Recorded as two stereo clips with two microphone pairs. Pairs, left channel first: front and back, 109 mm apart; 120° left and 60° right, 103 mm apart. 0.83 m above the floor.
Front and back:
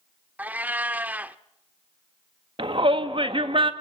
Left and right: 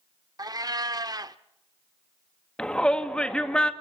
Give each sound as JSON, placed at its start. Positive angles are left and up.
{"t": 0.4, "sound": "a cat meowing", "azimuth_deg": -105, "distance_m": 0.6}
{"t": 2.6, "sound": "a shout", "azimuth_deg": -160, "distance_m": 1.5}